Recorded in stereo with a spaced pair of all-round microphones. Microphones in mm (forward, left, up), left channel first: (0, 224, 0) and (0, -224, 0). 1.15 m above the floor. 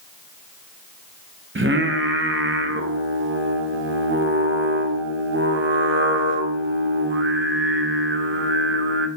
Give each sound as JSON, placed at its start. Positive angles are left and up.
{"t": 1.6, "sound": "singing", "side_deg": -25, "distance_m": 0.6}